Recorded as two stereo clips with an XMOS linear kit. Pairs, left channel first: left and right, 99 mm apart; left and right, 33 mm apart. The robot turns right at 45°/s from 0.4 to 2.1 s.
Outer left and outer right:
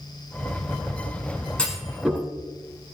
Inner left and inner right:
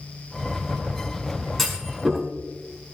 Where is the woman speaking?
No woman speaking in this recording.